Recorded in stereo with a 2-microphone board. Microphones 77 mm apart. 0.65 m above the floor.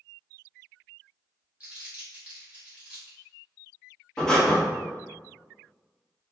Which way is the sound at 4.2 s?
10° left (ahead or behind).